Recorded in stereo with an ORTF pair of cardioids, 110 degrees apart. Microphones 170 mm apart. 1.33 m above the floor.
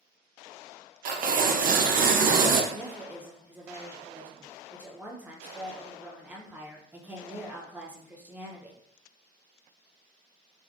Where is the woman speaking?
10° right, 0.8 m.